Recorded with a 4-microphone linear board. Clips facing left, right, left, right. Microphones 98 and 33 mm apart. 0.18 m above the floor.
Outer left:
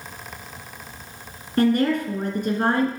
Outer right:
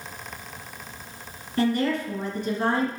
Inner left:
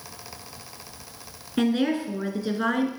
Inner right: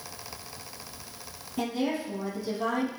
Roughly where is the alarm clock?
No alarm clock in this recording.